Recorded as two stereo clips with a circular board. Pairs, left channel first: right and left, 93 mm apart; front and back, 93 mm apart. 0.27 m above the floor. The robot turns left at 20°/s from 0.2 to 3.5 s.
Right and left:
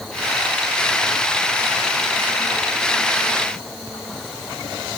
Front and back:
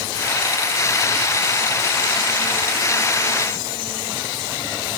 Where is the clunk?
No clunk in this recording.